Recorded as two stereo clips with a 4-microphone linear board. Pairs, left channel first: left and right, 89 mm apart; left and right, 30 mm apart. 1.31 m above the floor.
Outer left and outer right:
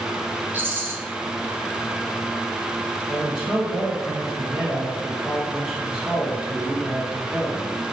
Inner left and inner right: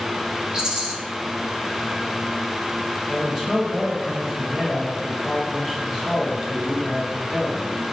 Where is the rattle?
25° right (ahead or behind), 0.8 m.